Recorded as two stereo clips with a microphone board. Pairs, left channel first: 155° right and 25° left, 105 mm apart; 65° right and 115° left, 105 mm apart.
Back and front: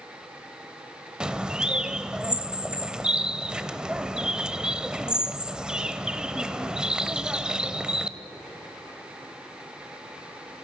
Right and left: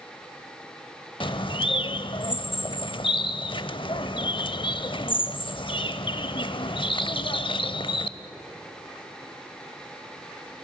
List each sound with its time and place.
1.2 s a bird: 60° right, 0.7 m